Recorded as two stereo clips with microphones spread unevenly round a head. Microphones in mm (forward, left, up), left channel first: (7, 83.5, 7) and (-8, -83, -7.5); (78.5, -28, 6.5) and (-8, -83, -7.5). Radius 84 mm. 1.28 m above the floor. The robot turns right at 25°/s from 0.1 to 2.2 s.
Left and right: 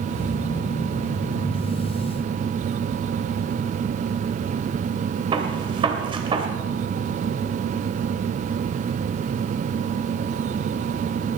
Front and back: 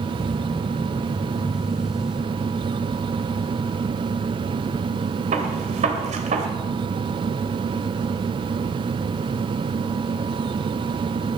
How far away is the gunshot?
About 2.5 m.